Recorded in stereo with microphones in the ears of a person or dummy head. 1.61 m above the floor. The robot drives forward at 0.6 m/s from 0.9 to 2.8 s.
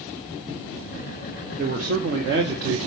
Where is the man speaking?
45° right (ahead or behind), 1.3 m; by 2.8 s 60° right (ahead or behind), 1.0 m.